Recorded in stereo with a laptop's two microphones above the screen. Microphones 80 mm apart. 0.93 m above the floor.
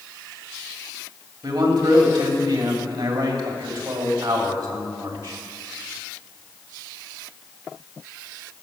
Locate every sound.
1.4 s a man speaking: 70° right (ahead or behind), 2.5 m